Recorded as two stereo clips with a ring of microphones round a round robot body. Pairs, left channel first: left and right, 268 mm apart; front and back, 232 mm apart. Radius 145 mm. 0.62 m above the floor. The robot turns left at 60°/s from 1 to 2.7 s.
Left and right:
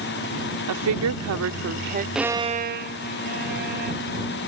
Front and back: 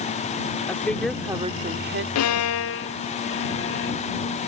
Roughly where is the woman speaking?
Right.